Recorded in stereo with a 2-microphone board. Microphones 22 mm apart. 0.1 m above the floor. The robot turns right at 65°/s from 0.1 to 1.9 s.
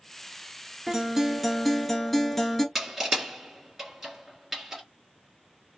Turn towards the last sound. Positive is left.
turn(degrees=-10)  # may be behind; listen again after turning